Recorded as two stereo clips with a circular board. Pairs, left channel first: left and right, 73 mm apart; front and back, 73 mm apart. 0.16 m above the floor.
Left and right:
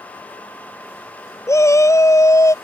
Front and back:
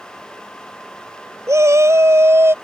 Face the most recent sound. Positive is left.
turn(degrees=125)